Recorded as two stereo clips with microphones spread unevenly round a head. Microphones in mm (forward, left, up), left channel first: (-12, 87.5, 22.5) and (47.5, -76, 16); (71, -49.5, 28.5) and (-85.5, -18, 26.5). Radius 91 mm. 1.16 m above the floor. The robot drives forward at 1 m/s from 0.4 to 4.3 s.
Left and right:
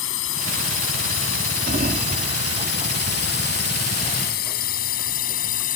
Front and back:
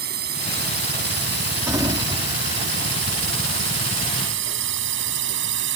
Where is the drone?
130° left; by 5.8 s 160° left.